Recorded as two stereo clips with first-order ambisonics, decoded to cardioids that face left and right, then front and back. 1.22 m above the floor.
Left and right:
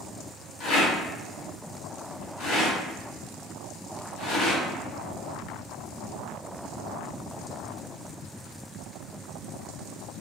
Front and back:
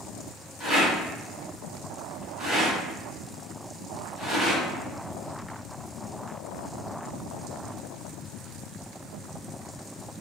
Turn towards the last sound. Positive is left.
turn(degrees=95)